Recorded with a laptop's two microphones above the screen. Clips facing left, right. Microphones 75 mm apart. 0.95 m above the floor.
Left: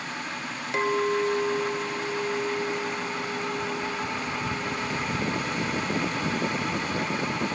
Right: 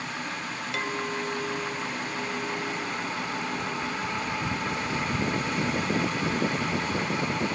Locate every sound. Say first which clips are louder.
0.7 s a clink: left 8 dB; 30° left (ahead or behind), 0.7 m